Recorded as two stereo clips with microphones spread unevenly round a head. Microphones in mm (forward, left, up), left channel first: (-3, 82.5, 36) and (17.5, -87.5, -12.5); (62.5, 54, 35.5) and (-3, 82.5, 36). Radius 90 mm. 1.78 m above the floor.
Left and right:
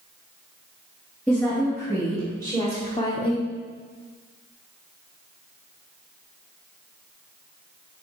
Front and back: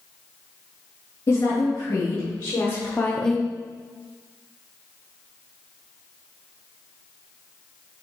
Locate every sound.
1.3 s a woman speaking: 20° left, 3 m; by 3.5 s 85° left, 0.6 m